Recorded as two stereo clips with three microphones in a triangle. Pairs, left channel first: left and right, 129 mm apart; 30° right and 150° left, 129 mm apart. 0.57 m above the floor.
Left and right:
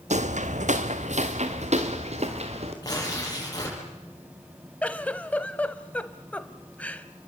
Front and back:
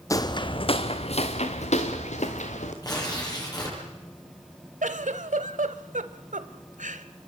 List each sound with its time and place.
0.1 s footsteps: 95° right, 1.2 m; by 2.7 s 55° right, 4 m
2.8 s tearing paper: 30° left, 9.5 m
4.8 s a giggle: 170° left, 1.2 m